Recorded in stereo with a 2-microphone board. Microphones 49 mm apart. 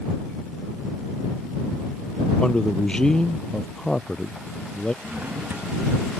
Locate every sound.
2.4 s a man speaking: 15° left (ahead or behind)
5.0 s a drawer: 45° right (ahead or behind)